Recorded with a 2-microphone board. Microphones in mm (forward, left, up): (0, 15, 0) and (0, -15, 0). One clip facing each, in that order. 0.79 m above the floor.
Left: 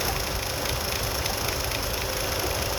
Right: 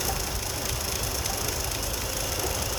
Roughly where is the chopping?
I don't hear chopping.